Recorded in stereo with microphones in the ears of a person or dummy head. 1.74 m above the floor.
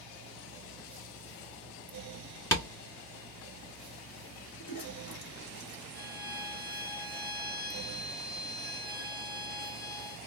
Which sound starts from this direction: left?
A toilet flushing, at 4.6 s.